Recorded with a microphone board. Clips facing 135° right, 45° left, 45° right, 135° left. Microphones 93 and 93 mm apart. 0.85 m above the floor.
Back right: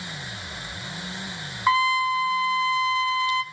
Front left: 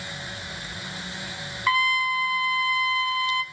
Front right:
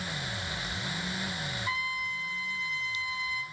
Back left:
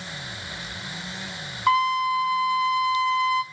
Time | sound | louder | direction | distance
1.7 | a trumpet | back right 3 dB, back left 18 dB | 160° left | 0.8 m